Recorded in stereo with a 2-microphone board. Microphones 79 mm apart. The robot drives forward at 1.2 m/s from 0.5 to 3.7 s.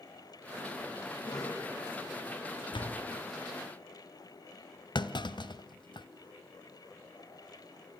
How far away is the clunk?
About 1.3 m.